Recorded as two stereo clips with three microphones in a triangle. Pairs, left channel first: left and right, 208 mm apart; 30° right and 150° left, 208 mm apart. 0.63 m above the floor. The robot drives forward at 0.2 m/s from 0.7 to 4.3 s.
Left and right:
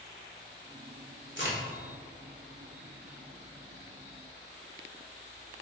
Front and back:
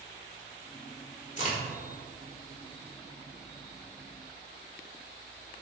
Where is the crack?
80° right, 1.5 m; by 1.6 s 85° right, 1.5 m.